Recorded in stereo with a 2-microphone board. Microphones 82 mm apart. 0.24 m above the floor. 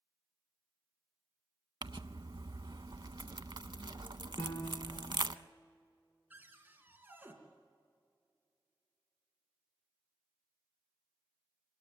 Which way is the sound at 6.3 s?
20° right (ahead or behind).